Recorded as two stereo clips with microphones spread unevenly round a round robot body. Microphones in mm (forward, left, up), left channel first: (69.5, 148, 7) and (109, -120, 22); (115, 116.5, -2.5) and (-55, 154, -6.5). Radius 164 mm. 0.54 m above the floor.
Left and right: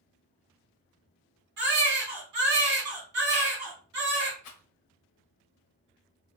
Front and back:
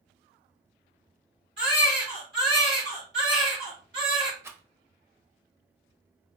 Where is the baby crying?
125° right, 1.4 m.